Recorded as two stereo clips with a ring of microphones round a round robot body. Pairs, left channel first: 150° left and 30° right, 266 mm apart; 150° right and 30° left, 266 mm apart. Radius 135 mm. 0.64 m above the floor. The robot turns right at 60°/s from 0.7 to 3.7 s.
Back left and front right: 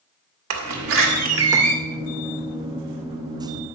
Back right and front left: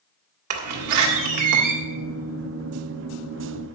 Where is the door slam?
5° right, 1.7 m; by 1.8 s 60° left, 1.7 m.